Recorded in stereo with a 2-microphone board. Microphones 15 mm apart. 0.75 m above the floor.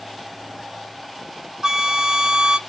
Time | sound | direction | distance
1.6 | a flute | 50° right (ahead or behind) | 0.5 m